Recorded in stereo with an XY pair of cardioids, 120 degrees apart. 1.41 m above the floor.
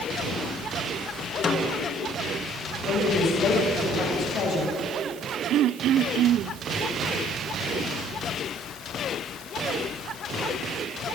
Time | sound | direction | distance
1.4 | a snare drum | 40° left | 2 m
2.8 | a woman speaking | 55° left | 7 m
5.5 | throat clearing | 65° right | 0.5 m